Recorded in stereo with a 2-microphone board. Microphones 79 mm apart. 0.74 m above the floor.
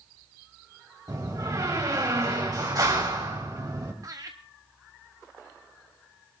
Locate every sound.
1.1 s a door slam: 50° right (ahead or behind), 3.5 m
4.0 s laughter: 45° right (ahead or behind), 0.9 m